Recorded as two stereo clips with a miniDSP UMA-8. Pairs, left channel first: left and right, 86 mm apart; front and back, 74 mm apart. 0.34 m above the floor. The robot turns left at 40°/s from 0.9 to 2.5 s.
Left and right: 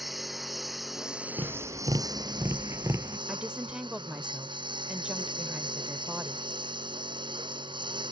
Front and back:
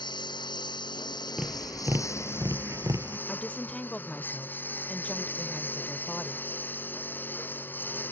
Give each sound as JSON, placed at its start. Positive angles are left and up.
{"t": 0.0, "sound": "a lawn mower", "azimuth_deg": 0}
{"t": 1.4, "sound": "tapping", "azimuth_deg": -100}
{"t": 3.3, "sound": "a woman speaking", "azimuth_deg": -35}